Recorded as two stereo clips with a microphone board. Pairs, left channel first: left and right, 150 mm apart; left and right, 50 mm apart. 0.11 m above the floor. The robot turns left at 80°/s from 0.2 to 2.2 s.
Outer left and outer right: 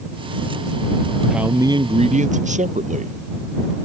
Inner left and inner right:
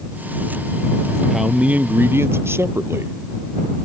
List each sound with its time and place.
1.3 s a man speaking: straight ahead; by 3.1 s 75° right